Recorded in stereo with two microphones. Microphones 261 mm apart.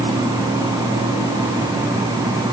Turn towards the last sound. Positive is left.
No sound to turn to.